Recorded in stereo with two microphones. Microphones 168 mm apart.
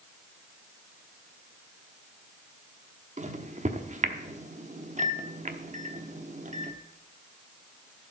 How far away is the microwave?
About 1.0 m.